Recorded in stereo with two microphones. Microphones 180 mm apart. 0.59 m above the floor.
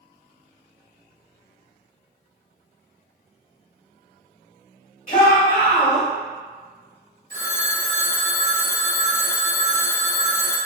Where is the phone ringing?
75° right (ahead or behind), 0.7 m.